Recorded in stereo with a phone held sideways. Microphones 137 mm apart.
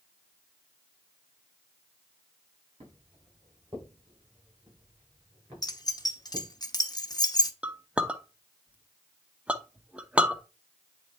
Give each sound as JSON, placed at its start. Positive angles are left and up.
{"t": 2.8, "sound": "footsteps", "side_deg": -45, "distance_m": 5.5}
{"t": 5.6, "sound": "keys jangling", "side_deg": 30, "distance_m": 0.8}
{"t": 7.6, "sound": "a clink", "side_deg": -10, "distance_m": 0.6}